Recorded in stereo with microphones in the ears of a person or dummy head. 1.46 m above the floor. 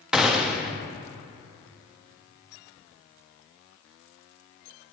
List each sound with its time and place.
0.1 s a gunshot: centre (ahead or behind), 0.5 m